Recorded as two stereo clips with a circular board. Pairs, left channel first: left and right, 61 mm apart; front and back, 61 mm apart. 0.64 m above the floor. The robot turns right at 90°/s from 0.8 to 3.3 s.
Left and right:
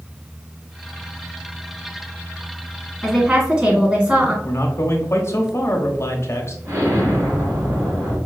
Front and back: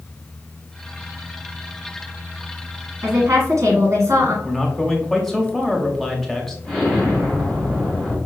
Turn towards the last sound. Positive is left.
turn(degrees=-75)